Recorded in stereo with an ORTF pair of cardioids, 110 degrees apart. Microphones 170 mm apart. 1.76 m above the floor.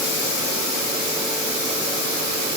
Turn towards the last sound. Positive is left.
No sound to turn to.